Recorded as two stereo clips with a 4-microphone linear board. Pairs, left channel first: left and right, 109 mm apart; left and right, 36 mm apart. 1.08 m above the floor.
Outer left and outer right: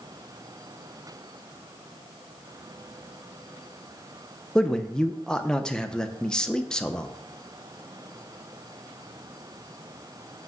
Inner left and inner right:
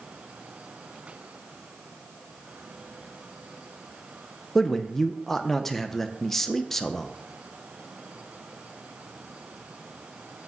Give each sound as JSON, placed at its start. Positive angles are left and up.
{"t": 4.5, "sound": "a man speaking", "side_deg": 10, "distance_m": 0.7}